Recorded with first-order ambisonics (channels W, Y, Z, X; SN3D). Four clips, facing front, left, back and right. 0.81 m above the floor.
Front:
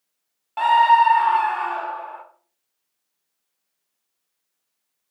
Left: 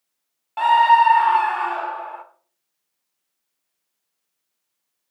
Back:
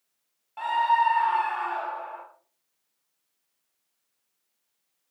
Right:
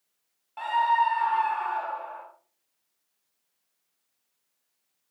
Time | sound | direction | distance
0.6 | a scream | 45° left | 0.7 m